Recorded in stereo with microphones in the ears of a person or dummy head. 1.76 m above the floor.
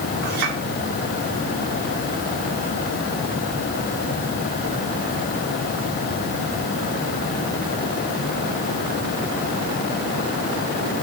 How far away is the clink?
About 6 m.